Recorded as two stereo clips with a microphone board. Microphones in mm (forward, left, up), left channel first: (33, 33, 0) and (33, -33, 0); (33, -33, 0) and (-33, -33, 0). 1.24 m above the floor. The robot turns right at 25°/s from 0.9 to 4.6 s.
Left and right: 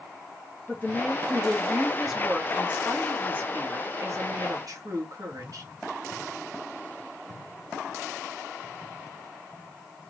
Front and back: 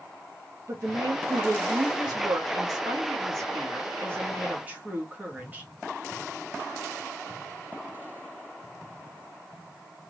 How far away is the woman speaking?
About 1.1 m.